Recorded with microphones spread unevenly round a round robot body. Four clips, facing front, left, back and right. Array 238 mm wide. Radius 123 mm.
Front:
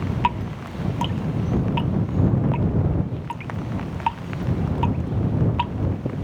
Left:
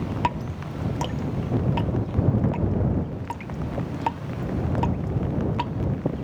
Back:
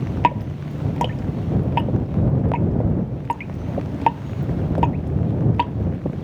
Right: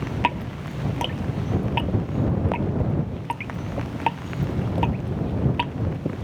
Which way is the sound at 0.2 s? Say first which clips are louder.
Right 4 dB, back 5 dB; straight behind.